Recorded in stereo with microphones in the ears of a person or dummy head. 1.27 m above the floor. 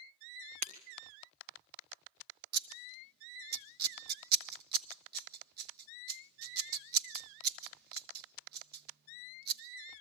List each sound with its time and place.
0.6 s breaking glass: 40° right (ahead or behind), 2 m
2.5 s scissors: 55° right (ahead or behind), 1.2 m